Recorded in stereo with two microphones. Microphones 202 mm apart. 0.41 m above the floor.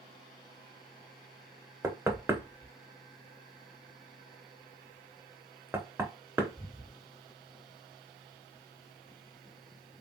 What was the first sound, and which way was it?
Knocking, 10° right (ahead or behind).